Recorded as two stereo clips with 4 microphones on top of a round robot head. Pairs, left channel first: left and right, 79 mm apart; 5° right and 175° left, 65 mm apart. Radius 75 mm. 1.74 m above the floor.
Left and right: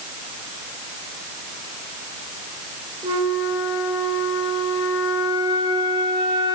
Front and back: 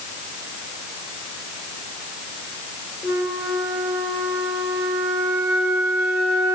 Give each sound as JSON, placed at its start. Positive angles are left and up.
{"t": 3.0, "sound": "a flute", "azimuth_deg": -125, "distance_m": 7.5}